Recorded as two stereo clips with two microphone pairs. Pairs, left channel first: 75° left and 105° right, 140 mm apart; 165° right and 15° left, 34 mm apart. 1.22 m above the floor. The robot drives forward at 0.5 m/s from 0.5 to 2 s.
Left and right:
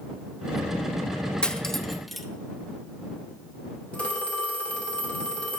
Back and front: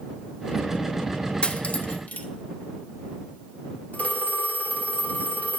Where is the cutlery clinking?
160° left, 0.5 m; by 2.3 s 170° left, 0.7 m.